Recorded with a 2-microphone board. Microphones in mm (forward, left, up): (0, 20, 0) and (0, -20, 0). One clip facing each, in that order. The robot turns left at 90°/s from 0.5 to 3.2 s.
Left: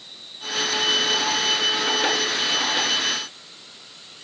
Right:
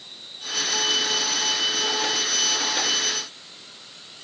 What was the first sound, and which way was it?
Only background noise.